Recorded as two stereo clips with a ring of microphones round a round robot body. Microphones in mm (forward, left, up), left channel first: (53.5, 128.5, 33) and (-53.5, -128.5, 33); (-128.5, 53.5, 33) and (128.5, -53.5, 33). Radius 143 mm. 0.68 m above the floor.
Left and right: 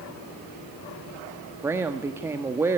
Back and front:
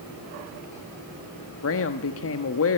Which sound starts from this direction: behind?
A woman speaking, at 1.6 s.